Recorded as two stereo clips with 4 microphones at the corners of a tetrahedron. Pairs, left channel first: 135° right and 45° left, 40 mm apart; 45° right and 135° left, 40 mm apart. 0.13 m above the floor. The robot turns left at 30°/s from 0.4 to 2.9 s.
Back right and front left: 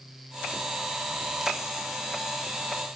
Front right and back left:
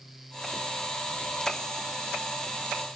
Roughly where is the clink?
No clink in this recording.